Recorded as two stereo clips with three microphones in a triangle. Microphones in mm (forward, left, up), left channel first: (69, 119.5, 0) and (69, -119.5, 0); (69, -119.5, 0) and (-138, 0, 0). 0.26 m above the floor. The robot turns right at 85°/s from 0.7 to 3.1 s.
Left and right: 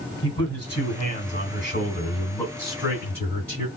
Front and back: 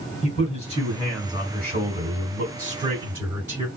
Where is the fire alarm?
I don't hear a fire alarm.